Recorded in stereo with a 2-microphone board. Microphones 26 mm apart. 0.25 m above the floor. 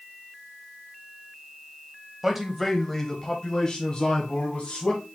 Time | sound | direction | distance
2.2 | a man speaking | 15° right (ahead or behind) | 1.0 m